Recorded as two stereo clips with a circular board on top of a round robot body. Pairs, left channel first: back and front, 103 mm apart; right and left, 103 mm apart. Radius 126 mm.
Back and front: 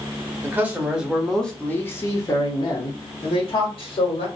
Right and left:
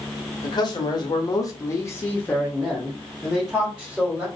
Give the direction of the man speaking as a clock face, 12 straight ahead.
2 o'clock.